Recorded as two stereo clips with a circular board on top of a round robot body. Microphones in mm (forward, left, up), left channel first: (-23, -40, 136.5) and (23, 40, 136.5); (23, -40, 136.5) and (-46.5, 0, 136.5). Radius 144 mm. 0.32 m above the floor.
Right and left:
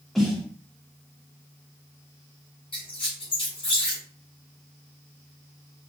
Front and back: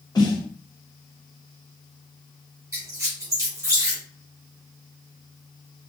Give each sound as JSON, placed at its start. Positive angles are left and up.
{"t": 0.1, "sound": "a snare drum", "azimuth_deg": -35, "distance_m": 1.2}
{"t": 2.7, "sound": "a squeak", "azimuth_deg": -150, "distance_m": 1.5}